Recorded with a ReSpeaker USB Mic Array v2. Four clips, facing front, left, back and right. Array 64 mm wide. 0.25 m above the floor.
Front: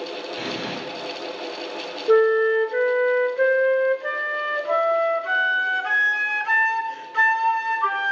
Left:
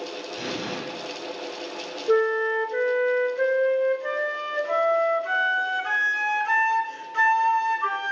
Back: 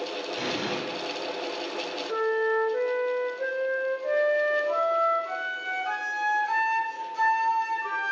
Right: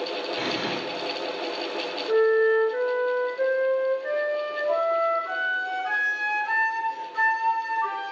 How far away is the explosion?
About 1.9 m.